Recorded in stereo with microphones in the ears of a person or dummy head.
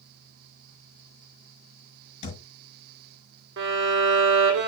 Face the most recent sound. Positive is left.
turn(degrees=-65)  # may be behind; listen again after turning